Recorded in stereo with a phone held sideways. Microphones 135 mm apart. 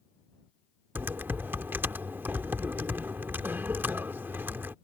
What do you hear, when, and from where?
0.9 s typing on a keyboard: 15° right (ahead or behind)